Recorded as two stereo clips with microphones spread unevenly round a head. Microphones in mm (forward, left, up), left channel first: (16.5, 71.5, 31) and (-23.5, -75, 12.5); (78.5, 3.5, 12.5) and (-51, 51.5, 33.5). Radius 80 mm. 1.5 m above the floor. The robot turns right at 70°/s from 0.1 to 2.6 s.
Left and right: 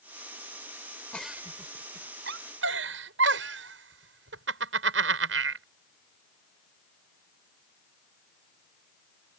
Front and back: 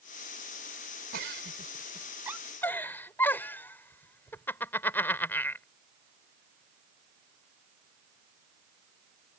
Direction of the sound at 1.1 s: 155° left.